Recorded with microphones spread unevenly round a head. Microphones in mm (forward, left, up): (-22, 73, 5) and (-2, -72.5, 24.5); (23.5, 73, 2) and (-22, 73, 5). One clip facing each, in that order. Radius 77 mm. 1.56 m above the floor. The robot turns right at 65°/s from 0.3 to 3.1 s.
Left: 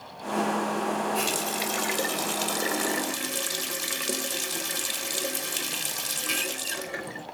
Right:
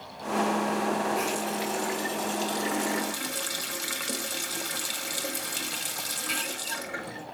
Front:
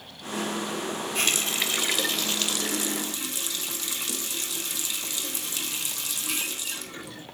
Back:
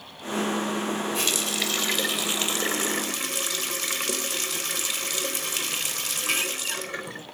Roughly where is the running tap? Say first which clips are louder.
Even, even; ahead left.